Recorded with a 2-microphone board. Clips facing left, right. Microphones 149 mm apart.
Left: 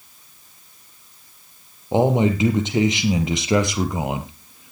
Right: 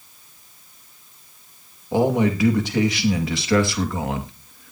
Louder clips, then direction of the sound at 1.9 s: Left 1 dB; 20° left (ahead or behind).